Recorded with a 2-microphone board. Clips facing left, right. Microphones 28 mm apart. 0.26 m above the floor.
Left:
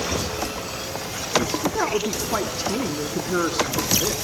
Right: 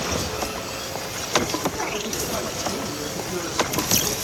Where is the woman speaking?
40° left (ahead or behind), 3 m; by 4.1 s 60° left (ahead or behind), 3.5 m.